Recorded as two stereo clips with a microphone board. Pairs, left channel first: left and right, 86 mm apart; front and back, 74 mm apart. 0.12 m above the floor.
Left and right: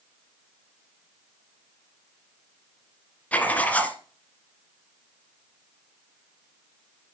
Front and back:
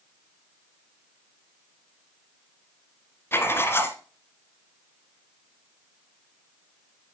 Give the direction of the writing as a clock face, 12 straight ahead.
11 o'clock.